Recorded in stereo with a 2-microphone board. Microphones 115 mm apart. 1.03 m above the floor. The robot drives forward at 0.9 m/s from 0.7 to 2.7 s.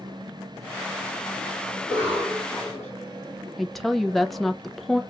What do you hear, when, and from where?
1.8 s a cough: 15° right (ahead or behind), 2.5 m; by 2.9 s 10° right (ahead or behind), 3 m
3.6 s a woman speaking: centre (ahead or behind), 0.5 m